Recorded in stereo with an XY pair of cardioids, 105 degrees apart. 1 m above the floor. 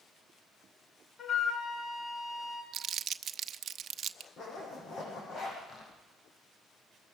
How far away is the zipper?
About 9 m.